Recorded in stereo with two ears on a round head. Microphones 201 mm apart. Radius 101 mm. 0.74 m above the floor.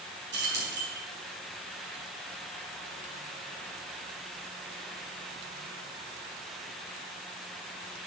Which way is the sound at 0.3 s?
55° right (ahead or behind).